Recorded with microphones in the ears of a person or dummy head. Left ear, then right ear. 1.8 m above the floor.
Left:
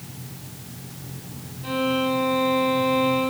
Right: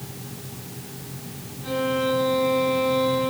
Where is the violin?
15° left (ahead or behind), 3 m.